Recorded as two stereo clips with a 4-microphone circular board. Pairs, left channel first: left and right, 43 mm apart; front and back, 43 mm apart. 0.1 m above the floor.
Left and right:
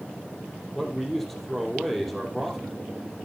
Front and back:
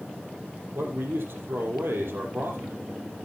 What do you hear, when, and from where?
0.8 s a man speaking: 175° left, 3.5 m